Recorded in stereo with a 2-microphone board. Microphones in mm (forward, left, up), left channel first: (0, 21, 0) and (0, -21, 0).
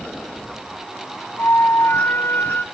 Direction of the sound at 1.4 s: 65° left (ahead or behind).